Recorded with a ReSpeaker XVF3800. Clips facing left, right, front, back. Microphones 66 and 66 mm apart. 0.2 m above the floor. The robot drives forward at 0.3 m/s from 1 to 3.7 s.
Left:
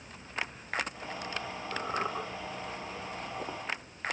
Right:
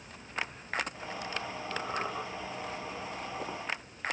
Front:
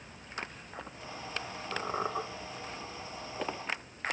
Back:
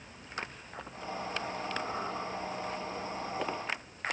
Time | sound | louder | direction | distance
1.7 | a squeak | left 2 dB, front 6 dB | 5° left | 0.6 m